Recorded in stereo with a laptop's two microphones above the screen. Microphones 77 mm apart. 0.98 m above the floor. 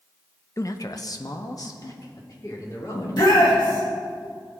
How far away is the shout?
About 1.8 m.